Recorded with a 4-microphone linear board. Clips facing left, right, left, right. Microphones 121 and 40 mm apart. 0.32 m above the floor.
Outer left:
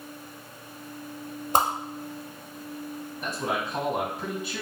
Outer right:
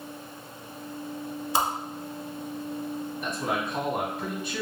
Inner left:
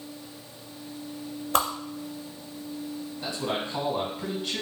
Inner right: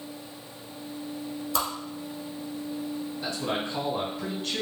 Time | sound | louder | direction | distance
1.5 | a whoosh | outer left 3 dB, inner left 5 dB | 55° left (ahead or behind) | 0.7 m
3.2 | a man speaking | outer left 1 dB, inner left 1 dB | 5° left (ahead or behind) | 1.9 m